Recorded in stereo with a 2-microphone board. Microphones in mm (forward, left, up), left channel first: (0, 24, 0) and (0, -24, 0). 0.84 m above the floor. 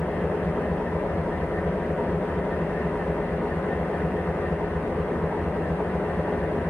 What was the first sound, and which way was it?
An engine running, 45° left (ahead or behind).